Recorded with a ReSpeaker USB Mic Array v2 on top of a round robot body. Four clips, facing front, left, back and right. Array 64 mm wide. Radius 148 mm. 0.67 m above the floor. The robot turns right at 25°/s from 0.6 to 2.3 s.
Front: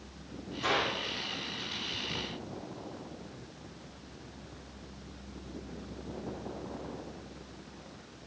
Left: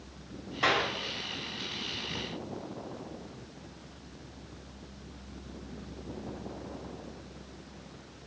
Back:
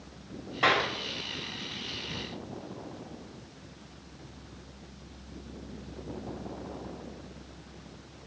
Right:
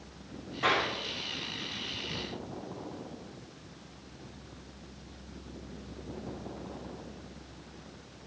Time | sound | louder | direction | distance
0.6 | a clap | left 1 dB, back 5 dB | 160° left | 7 m